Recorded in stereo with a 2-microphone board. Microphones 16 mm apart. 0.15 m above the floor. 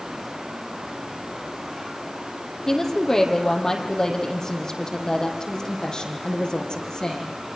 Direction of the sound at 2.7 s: 35° left (ahead or behind).